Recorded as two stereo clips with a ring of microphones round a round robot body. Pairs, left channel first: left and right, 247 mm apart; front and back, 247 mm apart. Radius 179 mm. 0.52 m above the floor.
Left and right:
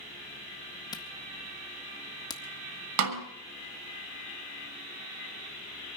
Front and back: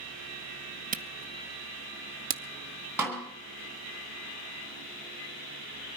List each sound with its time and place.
0.9 s a camera shutter: 155° left, 0.5 m
3.0 s a snare drum: 95° right, 1.4 m